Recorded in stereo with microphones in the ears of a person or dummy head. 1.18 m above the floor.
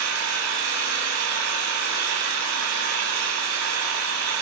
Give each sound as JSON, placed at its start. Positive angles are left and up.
{"t": 0.0, "sound": "an engine running", "side_deg": -90, "distance_m": 6.5}